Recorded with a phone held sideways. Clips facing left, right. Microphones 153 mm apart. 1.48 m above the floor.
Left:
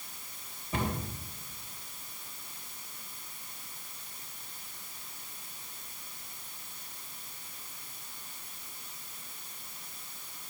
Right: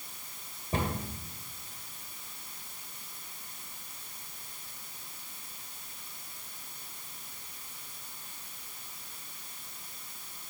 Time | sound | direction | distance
0.7 | a cupboard door | 35° right (ahead or behind) | 2 m